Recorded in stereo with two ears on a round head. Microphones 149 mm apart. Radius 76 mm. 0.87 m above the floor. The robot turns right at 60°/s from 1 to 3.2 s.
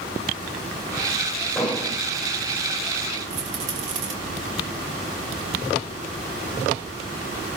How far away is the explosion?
About 4 m.